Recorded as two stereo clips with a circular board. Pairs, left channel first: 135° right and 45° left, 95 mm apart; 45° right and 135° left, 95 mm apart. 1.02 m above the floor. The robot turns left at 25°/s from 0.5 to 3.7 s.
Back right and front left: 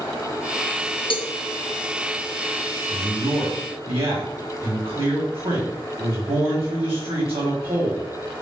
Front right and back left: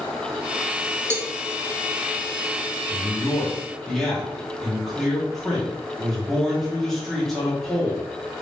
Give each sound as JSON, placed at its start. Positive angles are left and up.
{"t": 1.1, "sound": "a cowbell", "azimuth_deg": -160, "distance_m": 0.6}
{"t": 2.9, "sound": "a man speaking", "azimuth_deg": 65, "distance_m": 1.9}